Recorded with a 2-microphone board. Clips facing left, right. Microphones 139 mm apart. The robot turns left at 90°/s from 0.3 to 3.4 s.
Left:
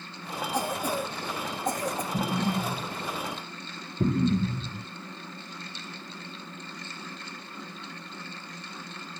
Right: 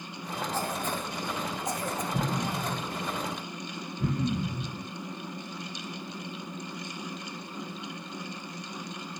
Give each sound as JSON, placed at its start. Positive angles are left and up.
{"t": 0.5, "sound": "a cough", "side_deg": 10, "distance_m": 2.5}
{"t": 2.1, "sound": "an explosion", "side_deg": 0, "distance_m": 4.5}